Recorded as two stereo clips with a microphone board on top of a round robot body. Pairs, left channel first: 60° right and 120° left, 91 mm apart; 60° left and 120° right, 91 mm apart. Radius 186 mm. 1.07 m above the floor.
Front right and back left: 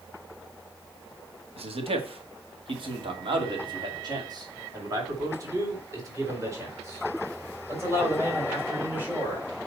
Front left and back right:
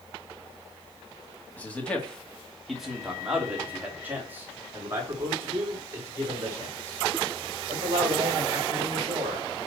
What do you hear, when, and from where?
1.6 s a man speaking: 135° left, 2.5 m; by 9.5 s 170° right, 6.5 m